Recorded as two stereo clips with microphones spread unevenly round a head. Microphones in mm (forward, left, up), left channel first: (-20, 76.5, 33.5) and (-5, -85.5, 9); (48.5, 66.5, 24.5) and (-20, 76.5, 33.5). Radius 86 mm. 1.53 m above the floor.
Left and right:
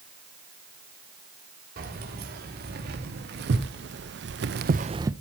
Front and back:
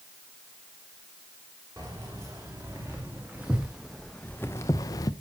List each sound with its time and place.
1.8 s keys jangling: 115° right, 3 m; by 5.1 s 5° right, 0.6 m